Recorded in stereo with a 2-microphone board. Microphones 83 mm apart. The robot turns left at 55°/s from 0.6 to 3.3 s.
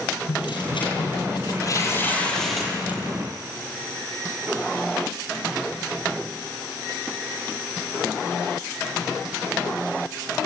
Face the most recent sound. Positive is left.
turn(degrees=-40)